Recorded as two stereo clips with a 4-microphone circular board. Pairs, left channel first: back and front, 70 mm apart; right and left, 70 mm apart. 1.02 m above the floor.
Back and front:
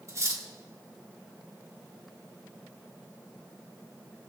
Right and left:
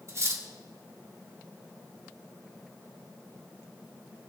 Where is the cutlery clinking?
45° left, 1.6 m.